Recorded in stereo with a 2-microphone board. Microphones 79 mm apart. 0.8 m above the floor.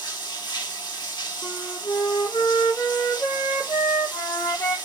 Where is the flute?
50° left (ahead or behind), 1.2 m.